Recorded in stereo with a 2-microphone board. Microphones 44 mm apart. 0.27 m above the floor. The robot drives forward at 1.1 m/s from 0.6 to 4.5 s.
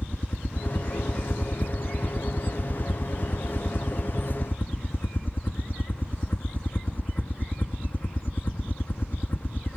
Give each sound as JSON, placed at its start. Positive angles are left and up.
{"t": 0.0, "sound": "a helicopter", "side_deg": 40}